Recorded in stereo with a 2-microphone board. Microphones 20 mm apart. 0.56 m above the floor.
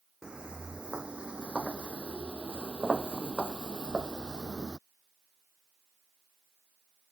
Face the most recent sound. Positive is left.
turn(degrees=-35)  # may be behind; listen again after turning